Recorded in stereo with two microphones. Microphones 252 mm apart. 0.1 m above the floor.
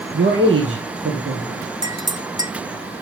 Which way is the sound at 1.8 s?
15° right (ahead or behind).